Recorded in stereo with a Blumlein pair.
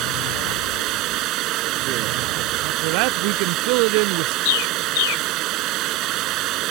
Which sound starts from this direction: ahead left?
A bird, at 4.5 s.